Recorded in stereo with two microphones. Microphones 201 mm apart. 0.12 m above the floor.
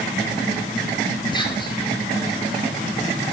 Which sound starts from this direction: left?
Whispering, at 1.3 s.